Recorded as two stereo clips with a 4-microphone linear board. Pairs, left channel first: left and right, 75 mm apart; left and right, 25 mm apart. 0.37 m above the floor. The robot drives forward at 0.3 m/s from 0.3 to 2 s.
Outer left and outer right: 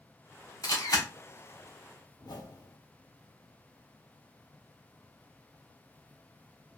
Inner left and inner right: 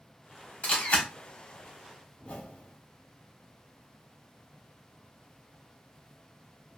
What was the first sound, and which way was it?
A camera shutter, 55° left (ahead or behind).